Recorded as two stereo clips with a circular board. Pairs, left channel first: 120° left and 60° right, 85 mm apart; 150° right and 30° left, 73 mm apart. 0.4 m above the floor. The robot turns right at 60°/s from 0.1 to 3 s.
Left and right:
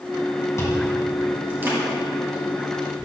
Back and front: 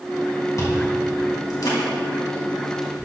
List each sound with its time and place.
0.6 s chewing: 170° left, 2.5 m; by 3.1 s 45° right, 2.5 m